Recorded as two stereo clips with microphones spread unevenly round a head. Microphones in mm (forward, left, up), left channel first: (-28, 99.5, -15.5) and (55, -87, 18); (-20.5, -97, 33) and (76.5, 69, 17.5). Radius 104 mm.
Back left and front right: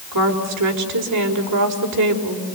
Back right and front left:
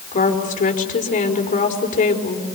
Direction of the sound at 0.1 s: 70° right.